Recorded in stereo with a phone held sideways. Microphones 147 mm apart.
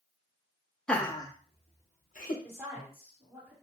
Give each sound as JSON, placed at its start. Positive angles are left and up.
{"t": 0.9, "sound": "laughter", "side_deg": 5, "distance_m": 0.6}
{"t": 2.4, "sound": "a woman speaking", "side_deg": -15, "distance_m": 2.0}